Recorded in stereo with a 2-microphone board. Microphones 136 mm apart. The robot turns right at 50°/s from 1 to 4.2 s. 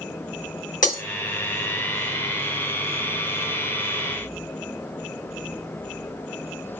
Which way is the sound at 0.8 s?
80° left.